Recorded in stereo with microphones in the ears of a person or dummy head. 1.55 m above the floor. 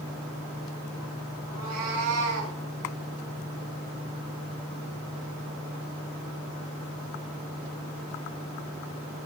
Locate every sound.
1.5 s a cat meowing: 80° right, 4.5 m